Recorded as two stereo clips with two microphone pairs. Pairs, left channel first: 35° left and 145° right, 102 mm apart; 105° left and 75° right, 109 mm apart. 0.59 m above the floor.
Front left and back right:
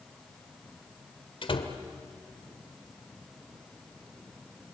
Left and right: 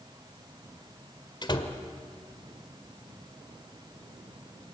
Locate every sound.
1.4 s a door slam: 60° left, 1.7 m